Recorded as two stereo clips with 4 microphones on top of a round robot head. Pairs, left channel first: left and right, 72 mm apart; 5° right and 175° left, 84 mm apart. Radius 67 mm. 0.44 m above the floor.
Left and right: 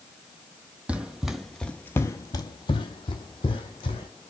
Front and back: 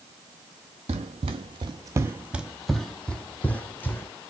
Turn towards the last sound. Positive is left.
turn(degrees=60)